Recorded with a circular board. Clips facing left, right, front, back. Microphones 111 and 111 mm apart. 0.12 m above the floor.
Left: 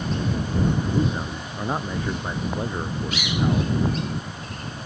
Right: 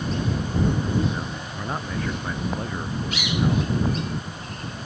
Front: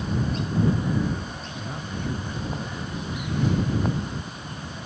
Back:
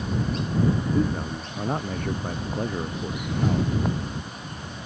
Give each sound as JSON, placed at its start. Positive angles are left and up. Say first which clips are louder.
{"t": 0.9, "sound": "a man speaking", "louder": "left 1 dB, back 3 dB", "azimuth_deg": 165}